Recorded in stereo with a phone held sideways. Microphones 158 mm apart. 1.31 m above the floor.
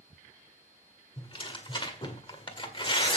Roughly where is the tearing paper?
Left.